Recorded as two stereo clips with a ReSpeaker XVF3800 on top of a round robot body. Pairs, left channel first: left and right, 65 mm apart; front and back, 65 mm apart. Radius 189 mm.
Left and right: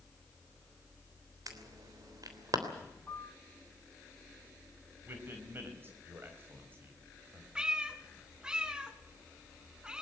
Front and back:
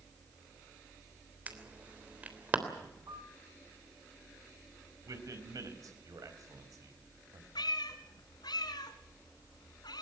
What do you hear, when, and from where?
1.5 s an alarm: 115° right, 3.5 m
3.1 s a piano: 155° left, 3.5 m
5.1 s a man speaking: 150° right, 4.5 m
7.5 s a cat meowing: 15° right, 1.4 m